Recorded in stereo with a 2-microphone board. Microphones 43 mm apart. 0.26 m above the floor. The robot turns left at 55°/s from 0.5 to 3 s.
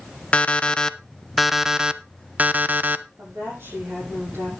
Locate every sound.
0.3 s an alarm clock: 50° left, 0.7 m; by 3.0 s 85° right, 0.7 m
3.2 s a woman speaking: 65° right (ahead or behind), 8 m